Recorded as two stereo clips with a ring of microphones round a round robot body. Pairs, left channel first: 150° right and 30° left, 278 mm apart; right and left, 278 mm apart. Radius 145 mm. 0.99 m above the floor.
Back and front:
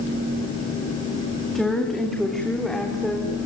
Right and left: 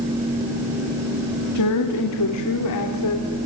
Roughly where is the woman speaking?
Ahead right.